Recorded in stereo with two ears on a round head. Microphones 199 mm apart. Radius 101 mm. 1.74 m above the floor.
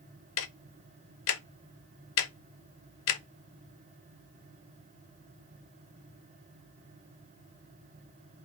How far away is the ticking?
About 0.7 m.